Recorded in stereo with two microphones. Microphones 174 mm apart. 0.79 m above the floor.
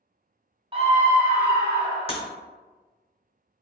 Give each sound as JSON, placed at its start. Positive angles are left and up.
{"t": 0.7, "sound": "a scream", "side_deg": -30, "distance_m": 0.8}
{"t": 2.1, "sound": "breaking glass", "side_deg": 35, "distance_m": 0.6}